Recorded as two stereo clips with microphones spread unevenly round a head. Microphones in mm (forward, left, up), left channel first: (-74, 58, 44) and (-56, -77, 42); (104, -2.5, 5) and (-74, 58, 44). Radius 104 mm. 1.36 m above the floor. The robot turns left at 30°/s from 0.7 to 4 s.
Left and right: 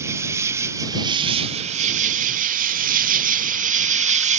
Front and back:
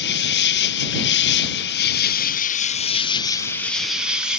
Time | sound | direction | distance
0.0 | an insect | 10° right | ?